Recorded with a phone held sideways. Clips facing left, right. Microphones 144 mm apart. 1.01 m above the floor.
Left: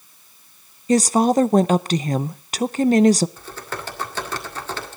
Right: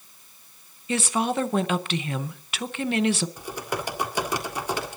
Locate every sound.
0.9 s a woman speaking: 35° left (ahead or behind), 0.6 m
3.4 s typing on a keyboard: 15° right (ahead or behind), 1.9 m